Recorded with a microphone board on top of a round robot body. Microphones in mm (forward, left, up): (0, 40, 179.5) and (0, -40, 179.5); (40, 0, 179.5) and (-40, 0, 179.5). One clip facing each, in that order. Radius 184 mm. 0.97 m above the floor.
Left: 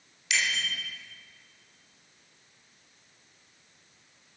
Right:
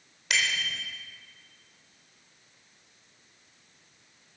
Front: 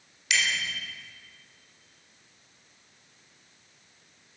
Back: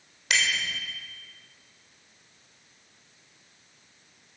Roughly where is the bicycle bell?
Behind right.